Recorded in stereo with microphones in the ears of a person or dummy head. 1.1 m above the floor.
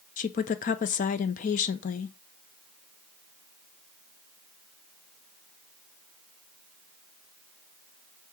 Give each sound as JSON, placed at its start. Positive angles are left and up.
{"t": 0.2, "sound": "a woman speaking", "side_deg": 40, "distance_m": 0.5}